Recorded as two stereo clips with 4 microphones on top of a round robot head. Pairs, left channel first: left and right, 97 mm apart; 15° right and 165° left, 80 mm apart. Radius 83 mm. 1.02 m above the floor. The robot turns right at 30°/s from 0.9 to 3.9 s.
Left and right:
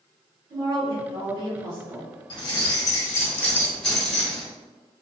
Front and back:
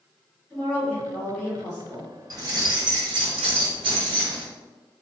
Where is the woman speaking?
95° right, 1.2 m; by 2.1 s 60° right, 1.2 m.